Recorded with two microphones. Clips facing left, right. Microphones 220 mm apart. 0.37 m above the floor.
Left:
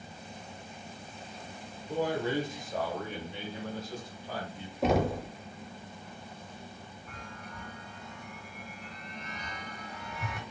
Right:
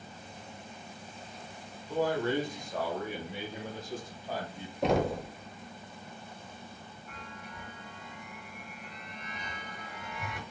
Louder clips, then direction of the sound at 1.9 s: Right 1 dB; 25° left (ahead or behind).